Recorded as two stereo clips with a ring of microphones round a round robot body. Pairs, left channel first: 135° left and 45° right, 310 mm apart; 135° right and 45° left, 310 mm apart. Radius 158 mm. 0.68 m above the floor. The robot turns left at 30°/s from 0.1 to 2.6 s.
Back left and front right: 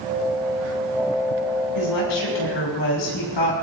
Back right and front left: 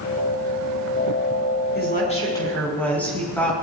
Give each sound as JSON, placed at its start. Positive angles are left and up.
{"t": 1.8, "sound": "a woman speaking", "azimuth_deg": 165, "distance_m": 6.0}